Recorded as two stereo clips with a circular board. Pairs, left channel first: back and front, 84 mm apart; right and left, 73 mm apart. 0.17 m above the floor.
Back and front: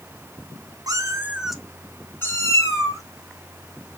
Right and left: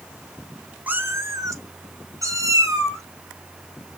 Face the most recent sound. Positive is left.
turn(degrees=135)